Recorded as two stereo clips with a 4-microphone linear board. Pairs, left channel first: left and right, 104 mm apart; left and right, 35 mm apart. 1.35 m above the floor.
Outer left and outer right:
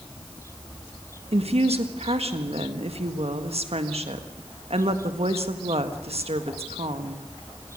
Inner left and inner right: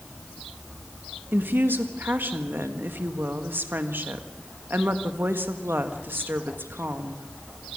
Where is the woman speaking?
80° right, 1.6 m.